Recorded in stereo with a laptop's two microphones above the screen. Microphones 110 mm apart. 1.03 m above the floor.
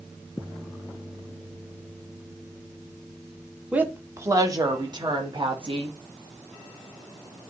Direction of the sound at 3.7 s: 15° right (ahead or behind).